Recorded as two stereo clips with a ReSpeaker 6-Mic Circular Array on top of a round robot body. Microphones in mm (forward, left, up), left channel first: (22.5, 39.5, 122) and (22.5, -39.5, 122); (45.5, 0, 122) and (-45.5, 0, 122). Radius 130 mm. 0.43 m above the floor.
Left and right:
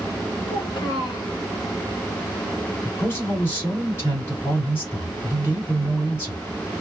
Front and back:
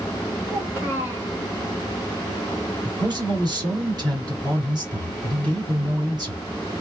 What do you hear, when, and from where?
0.5 s a child speaking: 115° left, 1.9 m
2.8 s a man speaking: 145° left, 2.5 m